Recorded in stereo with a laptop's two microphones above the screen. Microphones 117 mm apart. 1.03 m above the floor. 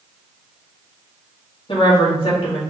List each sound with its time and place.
1.7 s a woman speaking: 45° left (ahead or behind), 1.9 m